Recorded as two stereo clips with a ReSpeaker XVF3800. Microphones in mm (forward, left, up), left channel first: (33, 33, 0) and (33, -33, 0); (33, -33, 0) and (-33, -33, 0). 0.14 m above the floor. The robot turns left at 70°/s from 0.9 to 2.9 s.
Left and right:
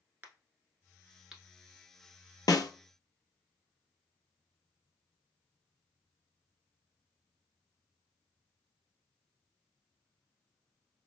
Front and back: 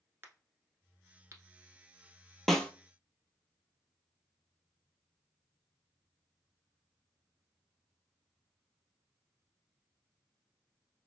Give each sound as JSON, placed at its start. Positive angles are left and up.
{"t": 0.2, "sound": "a crack", "azimuth_deg": -140, "distance_m": 0.8}
{"t": 2.5, "sound": "a snare drum", "azimuth_deg": 85, "distance_m": 0.6}